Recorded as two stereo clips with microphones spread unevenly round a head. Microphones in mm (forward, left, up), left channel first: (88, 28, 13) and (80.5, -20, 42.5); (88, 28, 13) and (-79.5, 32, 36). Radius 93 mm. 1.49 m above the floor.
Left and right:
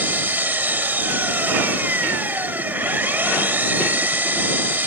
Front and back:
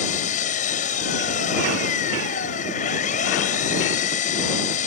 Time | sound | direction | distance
0.0 | an engine running | 55° right | ?